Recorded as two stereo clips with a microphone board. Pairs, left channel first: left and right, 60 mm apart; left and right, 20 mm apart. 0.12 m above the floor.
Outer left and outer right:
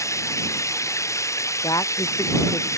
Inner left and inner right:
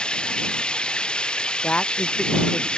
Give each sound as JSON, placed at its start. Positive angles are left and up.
{"t": 0.0, "sound": "running water", "side_deg": 55}
{"t": 1.6, "sound": "a woman speaking", "side_deg": 85}